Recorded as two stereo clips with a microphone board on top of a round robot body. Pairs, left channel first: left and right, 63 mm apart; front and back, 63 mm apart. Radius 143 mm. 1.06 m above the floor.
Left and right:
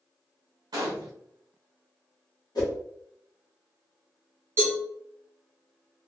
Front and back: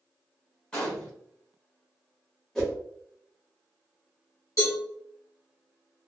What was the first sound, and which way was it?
A gunshot, 75° right.